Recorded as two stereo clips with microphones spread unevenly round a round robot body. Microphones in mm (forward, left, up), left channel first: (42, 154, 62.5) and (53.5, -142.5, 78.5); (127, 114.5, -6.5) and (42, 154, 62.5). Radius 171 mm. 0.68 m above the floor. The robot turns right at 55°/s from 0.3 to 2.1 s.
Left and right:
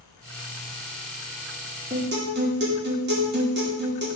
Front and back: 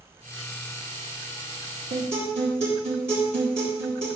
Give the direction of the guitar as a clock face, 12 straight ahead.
5 o'clock.